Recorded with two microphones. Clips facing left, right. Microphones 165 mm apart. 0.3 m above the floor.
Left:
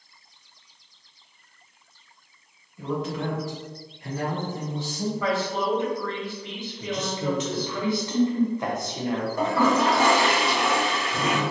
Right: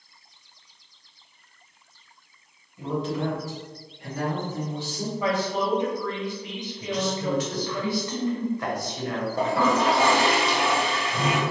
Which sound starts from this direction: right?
A toilet flushing, at 9.4 s.